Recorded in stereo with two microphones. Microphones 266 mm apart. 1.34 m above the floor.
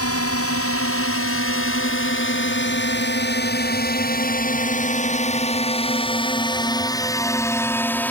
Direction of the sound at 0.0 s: 60° left (ahead or behind).